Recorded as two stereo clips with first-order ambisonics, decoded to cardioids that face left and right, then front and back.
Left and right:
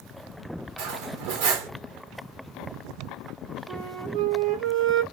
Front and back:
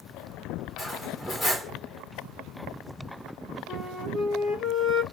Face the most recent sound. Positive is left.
turn(degrees=-55)